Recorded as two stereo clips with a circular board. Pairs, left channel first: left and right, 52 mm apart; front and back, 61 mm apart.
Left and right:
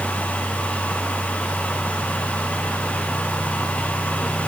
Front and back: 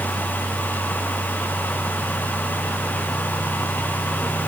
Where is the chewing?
I don't hear chewing.